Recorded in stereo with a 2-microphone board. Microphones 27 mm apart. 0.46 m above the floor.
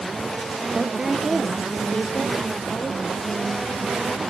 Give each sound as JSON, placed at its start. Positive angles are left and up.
{"t": 0.7, "sound": "a woman speaking", "side_deg": -25, "distance_m": 0.9}